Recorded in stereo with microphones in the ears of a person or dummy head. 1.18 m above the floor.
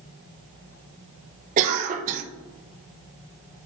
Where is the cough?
45° right (ahead or behind), 0.8 m.